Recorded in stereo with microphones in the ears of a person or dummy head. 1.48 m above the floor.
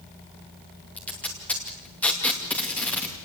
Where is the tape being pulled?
15° left (ahead or behind), 2.5 m.